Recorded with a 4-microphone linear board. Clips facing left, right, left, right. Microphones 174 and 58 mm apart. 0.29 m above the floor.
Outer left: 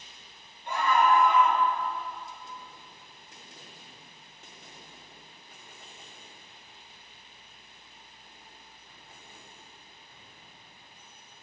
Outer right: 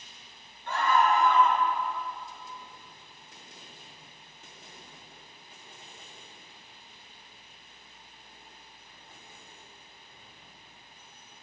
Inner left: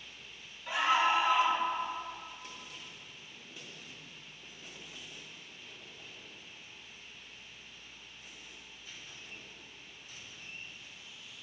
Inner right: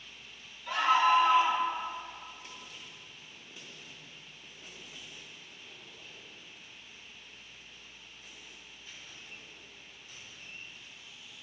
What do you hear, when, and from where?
0.7 s a scream: 20° left (ahead or behind), 5.5 m